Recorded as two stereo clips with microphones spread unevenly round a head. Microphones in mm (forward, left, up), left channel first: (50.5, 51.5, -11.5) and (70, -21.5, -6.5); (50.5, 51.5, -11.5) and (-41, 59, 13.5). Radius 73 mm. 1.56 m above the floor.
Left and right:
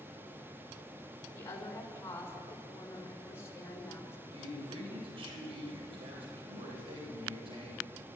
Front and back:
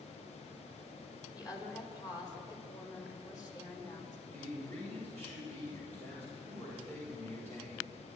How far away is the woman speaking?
About 6.5 m.